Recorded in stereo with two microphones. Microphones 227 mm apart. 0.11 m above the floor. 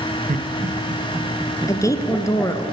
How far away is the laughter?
About 2 m.